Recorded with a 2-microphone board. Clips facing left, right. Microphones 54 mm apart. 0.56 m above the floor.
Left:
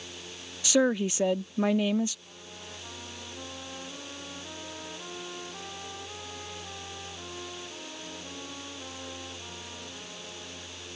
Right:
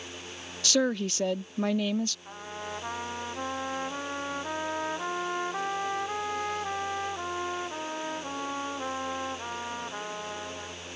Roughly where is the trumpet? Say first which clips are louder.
Right 8 dB; right.